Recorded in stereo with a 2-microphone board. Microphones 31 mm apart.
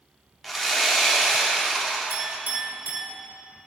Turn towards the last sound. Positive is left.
turn(degrees=-75)  # may be behind; listen again after turning